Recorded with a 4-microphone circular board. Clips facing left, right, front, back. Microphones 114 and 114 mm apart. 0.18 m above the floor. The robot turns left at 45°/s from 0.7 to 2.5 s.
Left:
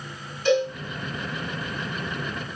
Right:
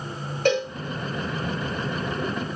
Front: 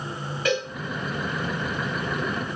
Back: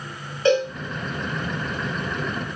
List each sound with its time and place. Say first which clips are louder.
0.5 s a cowbell: left 1 dB, back 7 dB; 120° right, 10 m